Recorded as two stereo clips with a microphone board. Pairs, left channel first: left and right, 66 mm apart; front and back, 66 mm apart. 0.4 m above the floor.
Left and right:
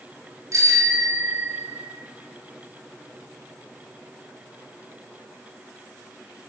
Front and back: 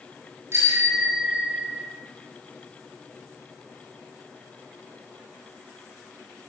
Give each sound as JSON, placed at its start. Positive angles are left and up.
{"t": 0.5, "sound": "a bicycle bell", "azimuth_deg": -130, "distance_m": 5.5}